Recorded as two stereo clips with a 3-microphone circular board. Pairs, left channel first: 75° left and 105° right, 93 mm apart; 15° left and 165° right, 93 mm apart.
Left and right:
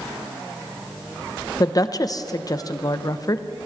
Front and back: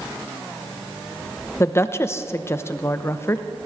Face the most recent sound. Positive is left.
turn(degrees=60)